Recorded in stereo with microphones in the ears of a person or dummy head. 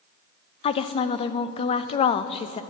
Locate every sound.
0.6 s a woman speaking: 30° left (ahead or behind), 0.5 m